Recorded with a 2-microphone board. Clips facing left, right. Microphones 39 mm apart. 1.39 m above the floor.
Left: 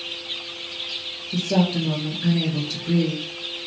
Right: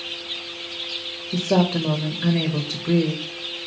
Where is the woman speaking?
60° right (ahead or behind), 0.6 m.